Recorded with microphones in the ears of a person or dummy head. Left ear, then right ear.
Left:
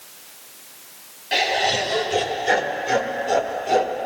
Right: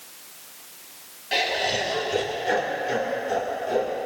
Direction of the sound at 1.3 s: 10° left (ahead or behind).